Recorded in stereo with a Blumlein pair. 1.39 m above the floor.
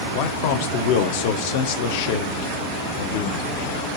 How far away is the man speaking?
About 0.7 m.